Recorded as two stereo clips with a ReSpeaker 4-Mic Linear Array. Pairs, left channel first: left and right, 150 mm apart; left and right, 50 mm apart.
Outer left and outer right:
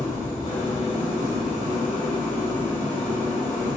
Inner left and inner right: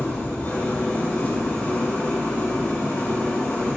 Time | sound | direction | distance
0.0 | an engine running | 55° left (ahead or behind) | 3.5 m